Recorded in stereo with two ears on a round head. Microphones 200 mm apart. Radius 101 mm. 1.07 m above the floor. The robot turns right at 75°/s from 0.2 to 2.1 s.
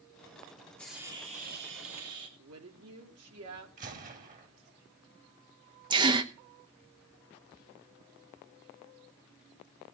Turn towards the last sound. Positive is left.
turn(degrees=-20)  # may be behind; listen again after turning